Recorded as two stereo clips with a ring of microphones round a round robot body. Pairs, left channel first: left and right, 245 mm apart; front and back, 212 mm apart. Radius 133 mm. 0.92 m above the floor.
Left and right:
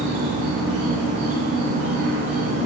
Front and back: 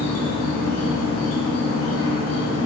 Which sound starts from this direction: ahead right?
An insect, at 0.0 s.